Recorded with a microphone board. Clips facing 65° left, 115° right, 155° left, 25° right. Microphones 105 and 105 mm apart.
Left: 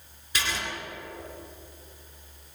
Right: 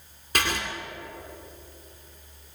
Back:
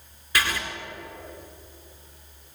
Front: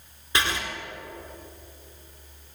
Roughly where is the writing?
Right.